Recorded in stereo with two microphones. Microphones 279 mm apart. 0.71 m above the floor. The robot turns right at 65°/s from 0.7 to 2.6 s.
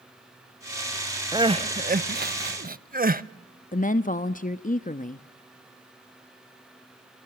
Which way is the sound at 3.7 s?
30° left (ahead or behind).